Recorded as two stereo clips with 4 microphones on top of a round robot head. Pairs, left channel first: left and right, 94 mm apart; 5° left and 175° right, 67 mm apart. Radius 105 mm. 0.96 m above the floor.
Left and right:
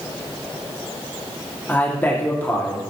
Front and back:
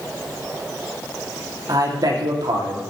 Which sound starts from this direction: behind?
A man speaking, at 1.7 s.